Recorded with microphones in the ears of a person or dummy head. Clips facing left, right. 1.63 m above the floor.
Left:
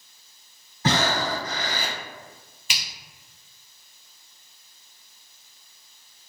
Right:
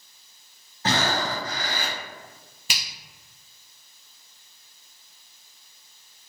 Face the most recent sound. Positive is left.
turn(degrees=-30)  # may be behind; listen again after turning